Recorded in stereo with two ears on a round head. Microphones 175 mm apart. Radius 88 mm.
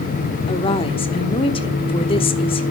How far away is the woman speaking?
About 1.1 m.